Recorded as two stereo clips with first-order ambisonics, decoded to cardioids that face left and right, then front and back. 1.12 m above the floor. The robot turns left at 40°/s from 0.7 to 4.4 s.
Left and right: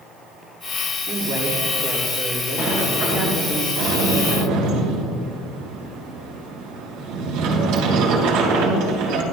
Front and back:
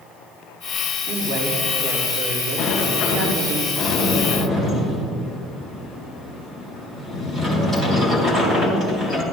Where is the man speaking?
85° right, 4 m; by 3.6 s 175° left, 4 m.